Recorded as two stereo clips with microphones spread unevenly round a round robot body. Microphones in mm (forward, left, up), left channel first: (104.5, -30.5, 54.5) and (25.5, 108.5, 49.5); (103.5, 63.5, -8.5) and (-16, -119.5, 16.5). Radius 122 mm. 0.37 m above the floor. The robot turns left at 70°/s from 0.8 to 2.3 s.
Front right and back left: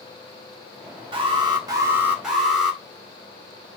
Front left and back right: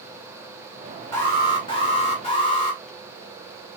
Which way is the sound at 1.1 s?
120° left.